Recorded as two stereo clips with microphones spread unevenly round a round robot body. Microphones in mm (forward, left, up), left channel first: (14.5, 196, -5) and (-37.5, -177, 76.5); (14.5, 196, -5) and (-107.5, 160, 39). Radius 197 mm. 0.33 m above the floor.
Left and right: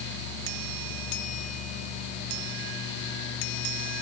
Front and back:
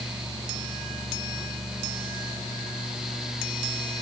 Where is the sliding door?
I don't hear a sliding door.